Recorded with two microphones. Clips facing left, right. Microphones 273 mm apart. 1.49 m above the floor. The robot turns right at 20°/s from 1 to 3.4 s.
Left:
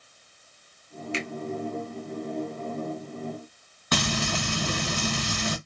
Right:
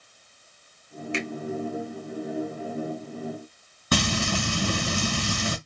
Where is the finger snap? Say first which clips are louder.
Right 2 dB; 60° right (ahead or behind), 1.1 m.